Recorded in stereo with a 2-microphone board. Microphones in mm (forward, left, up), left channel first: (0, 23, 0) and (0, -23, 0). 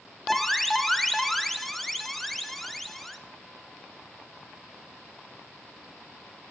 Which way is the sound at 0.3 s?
Centre (ahead or behind).